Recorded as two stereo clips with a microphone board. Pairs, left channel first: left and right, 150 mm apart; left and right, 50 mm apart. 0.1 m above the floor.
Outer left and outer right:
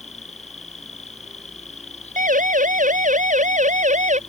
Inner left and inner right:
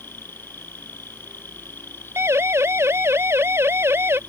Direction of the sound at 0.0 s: 45° left (ahead or behind).